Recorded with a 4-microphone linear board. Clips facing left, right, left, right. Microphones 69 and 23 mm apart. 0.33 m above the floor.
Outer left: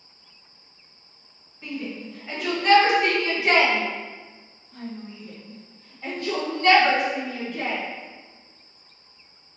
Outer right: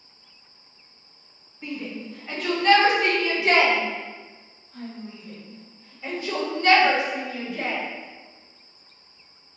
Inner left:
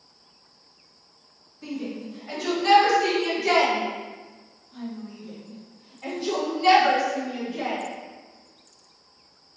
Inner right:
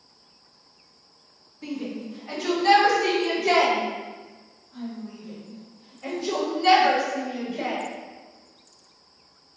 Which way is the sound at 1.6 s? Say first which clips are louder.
Even, even; 5° right (ahead or behind).